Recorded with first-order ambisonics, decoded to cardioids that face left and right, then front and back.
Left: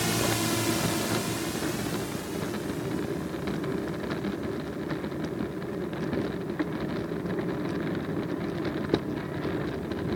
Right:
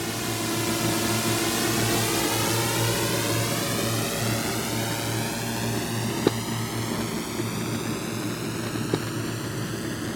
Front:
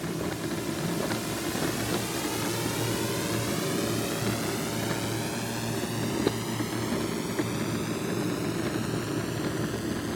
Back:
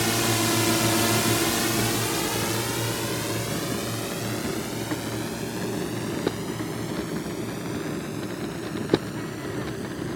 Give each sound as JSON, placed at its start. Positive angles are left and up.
{"t": 0.0, "sound": "a drone", "azimuth_deg": 170}